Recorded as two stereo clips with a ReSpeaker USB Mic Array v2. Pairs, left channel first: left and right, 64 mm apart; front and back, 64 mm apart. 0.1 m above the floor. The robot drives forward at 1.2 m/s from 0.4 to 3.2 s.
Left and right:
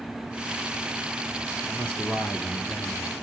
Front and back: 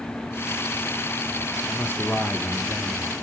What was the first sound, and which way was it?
A man speaking, 30° left.